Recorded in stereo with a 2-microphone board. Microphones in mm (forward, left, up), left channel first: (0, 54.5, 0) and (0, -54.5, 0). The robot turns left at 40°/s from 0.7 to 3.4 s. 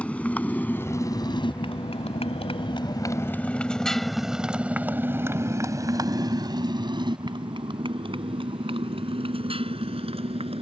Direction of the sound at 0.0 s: 10° left (ahead or behind).